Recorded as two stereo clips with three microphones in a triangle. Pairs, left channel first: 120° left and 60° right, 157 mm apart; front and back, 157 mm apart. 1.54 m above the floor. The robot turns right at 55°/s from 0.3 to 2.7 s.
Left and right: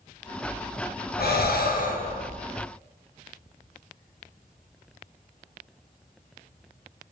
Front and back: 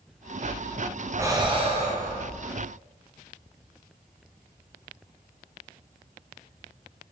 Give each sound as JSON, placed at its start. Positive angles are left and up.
{"t": 1.2, "sound": "breathing", "azimuth_deg": 105, "distance_m": 0.5}